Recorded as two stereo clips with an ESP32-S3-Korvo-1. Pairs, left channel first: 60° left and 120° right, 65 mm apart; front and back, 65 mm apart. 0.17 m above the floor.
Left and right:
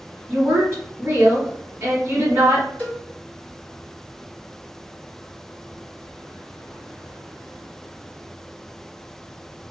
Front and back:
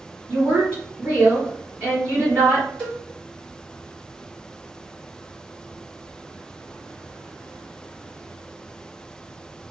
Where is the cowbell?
55° left, 1.5 m.